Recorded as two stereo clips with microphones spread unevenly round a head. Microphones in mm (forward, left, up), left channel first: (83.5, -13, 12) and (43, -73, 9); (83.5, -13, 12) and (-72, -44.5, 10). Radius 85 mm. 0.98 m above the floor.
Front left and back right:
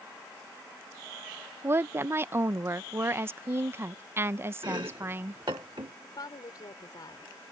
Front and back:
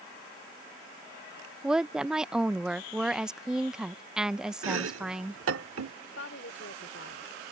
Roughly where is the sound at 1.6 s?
Right.